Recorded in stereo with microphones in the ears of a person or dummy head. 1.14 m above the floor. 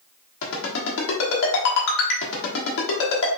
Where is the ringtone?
70° left (ahead or behind), 1.2 m.